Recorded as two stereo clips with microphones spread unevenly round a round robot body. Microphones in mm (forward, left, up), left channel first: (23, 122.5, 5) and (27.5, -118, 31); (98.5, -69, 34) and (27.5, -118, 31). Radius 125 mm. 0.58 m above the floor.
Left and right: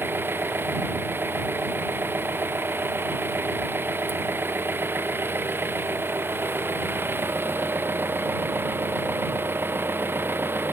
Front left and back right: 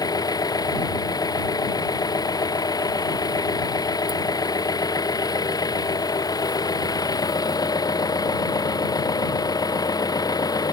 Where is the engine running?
5° right.